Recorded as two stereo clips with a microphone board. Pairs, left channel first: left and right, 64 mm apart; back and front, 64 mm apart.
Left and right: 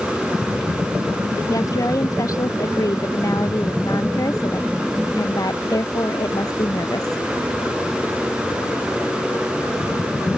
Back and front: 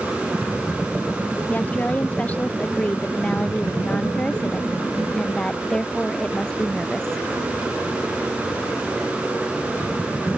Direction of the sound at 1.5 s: 115° left.